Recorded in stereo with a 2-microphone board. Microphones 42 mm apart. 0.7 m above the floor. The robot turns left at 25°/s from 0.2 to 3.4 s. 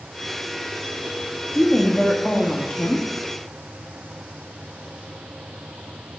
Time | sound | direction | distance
1.5 | a woman speaking | 170° left | 1.0 m